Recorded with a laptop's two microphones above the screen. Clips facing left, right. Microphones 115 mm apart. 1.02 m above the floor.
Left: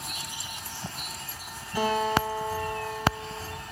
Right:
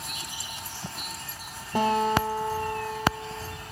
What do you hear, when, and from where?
1.8 s a guitar: 55° right (ahead or behind), 4.5 m